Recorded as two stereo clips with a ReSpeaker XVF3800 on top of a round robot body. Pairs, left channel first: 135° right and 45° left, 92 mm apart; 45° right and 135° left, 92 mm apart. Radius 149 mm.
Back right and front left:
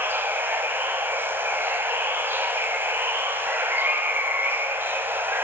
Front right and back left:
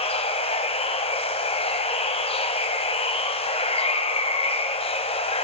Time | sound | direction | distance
0.0 | running water | 25° right | 1.4 m